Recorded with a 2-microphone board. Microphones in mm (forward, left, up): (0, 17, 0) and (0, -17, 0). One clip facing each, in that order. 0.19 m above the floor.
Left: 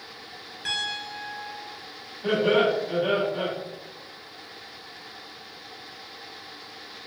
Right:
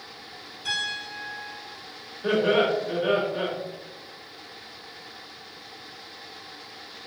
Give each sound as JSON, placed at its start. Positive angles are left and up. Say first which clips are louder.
{"t": 0.7, "sound": "a piano", "louder": "even", "side_deg": 65, "distance_m": 1.6}
{"t": 2.2, "sound": "laughter", "louder": "even", "side_deg": 20, "distance_m": 1.5}